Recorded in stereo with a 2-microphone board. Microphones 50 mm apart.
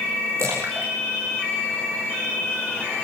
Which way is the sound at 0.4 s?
75° right (ahead or behind).